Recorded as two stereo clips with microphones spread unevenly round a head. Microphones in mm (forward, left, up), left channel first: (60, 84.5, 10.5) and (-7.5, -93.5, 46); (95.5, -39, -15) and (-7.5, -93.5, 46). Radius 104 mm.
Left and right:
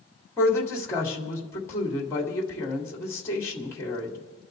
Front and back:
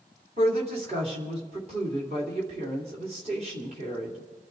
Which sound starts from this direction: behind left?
A woman speaking, at 0.4 s.